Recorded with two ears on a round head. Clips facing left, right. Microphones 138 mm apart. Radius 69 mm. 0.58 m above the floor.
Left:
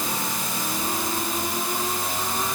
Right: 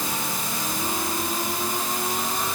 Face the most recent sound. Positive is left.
No sound to turn to.